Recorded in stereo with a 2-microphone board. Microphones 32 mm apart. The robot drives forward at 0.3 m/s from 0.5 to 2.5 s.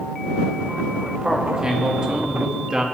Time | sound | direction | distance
1.2 | a man speaking | 25° right (ahead or behind) | 2 m